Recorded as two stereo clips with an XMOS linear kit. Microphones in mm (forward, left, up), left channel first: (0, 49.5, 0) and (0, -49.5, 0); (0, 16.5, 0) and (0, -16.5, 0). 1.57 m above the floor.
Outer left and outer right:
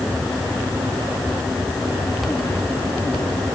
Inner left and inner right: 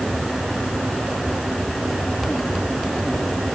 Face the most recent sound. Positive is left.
No sound to turn to.